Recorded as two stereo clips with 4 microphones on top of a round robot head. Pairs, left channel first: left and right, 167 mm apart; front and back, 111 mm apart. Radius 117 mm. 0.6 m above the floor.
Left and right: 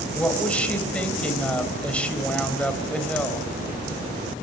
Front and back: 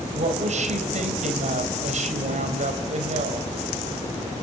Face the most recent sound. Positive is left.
turn(degrees=175)